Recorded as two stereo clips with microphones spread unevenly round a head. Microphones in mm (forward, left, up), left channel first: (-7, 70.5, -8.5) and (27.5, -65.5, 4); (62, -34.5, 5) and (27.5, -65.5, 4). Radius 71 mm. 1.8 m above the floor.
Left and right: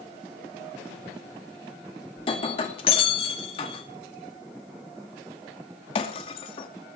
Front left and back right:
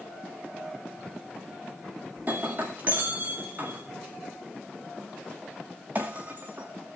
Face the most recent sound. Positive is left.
turn(degrees=155)